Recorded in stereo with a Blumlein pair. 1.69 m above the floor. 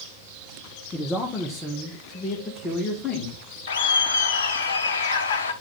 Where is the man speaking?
15° left, 1.3 m; by 3.4 s 20° left, 2.5 m.